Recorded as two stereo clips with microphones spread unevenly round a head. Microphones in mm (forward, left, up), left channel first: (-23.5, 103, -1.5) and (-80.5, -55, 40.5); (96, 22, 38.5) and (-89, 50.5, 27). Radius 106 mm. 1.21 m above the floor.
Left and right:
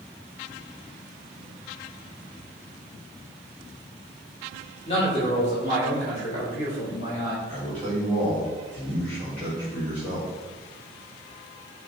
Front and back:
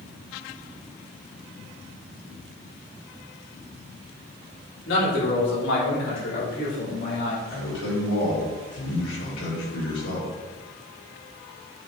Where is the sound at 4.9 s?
5° left, 3 m; by 7.3 s 15° left, 4 m.